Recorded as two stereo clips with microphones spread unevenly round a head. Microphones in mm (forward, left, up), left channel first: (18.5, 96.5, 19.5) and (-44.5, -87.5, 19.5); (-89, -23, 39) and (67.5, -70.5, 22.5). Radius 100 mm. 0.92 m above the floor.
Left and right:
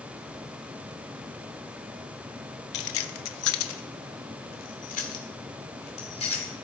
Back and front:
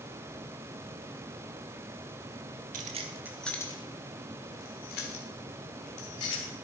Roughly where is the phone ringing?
I don't hear a phone ringing.